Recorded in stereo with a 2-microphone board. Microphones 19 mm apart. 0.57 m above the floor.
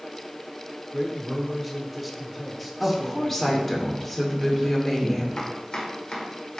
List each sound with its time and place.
0.9 s a man speaking: centre (ahead or behind), 1.3 m
2.8 s a woman speaking: 15° left (ahead or behind), 1.8 m
5.4 s chopping: 60° left (ahead or behind), 1.7 m